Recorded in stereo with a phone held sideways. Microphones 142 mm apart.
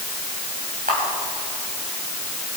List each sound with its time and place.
0.9 s a camera shutter: 80° right, 5 m